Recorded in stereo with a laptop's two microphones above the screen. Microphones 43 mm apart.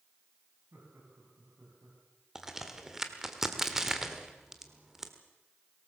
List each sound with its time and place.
0.7 s laughter: 75° right (ahead or behind), 8.5 m; by 2.0 s 80° right, 10 m
2.4 s a crack: 10° right (ahead or behind), 1.3 m